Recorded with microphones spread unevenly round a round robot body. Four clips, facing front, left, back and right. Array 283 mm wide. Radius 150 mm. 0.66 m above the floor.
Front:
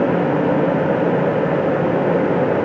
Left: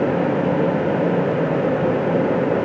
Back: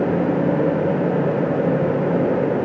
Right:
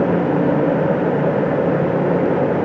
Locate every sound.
Only background noise.